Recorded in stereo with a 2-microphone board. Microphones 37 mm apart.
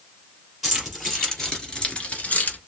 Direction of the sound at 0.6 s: 5° right (ahead or behind).